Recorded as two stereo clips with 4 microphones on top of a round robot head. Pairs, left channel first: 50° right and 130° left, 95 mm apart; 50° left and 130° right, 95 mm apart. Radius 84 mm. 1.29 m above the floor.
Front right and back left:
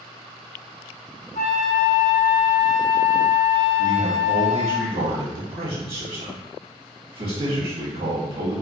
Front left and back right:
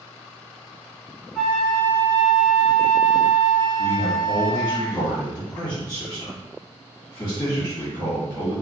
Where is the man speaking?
115° left, 2 m.